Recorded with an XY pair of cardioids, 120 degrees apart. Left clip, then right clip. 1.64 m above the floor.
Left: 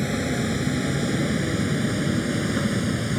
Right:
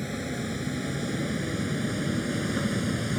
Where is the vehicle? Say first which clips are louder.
Left 7 dB; 40° left; by 3.2 s 15° left.